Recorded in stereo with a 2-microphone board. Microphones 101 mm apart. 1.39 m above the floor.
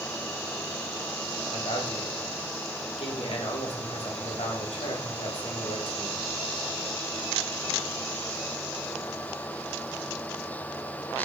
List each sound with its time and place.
1.5 s a man speaking: 70° left (ahead or behind), 1.6 m